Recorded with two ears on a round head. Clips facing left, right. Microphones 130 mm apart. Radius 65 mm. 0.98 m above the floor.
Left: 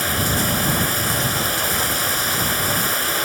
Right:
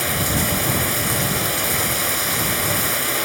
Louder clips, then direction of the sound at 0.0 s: Even; 5° right (ahead or behind).